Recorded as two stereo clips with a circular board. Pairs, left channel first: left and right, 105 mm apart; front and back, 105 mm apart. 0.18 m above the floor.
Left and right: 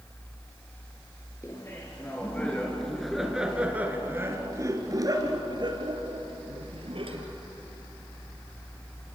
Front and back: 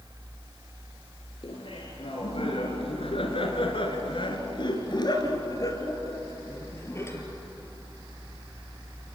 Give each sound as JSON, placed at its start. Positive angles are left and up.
{"t": 1.4, "sound": "laughter", "azimuth_deg": 30, "distance_m": 3.0}